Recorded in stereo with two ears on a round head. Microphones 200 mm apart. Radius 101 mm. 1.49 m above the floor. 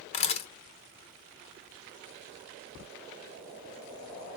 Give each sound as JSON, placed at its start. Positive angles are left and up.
{"t": 0.1, "sound": "a camera shutter", "side_deg": 30, "distance_m": 1.5}